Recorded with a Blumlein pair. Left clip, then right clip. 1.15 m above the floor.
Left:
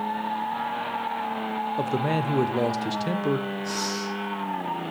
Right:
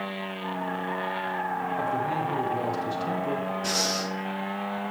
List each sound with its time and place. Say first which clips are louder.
1.8 s a man speaking: left 2 dB; 25° left, 0.9 m
3.6 s breathing: right 2 dB; 50° right, 2 m